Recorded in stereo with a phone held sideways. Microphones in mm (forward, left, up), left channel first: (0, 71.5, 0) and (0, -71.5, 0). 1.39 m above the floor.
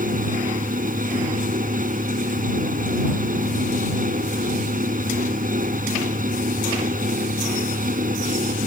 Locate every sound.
0.0 s a fan: 75° right (ahead or behind)